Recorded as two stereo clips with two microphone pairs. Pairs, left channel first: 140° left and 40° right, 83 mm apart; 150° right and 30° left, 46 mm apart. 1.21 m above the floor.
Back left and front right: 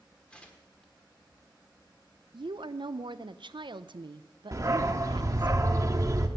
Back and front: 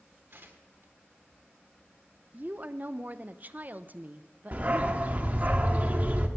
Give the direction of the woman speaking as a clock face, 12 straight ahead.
1 o'clock.